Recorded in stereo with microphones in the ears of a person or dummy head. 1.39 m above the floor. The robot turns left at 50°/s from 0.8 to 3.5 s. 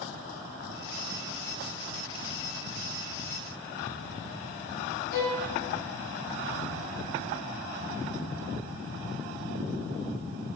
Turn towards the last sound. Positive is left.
turn(degrees=55)  # may be behind; listen again after turning